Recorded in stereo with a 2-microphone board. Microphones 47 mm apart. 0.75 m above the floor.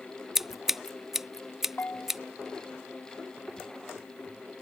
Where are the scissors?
10° right (ahead or behind).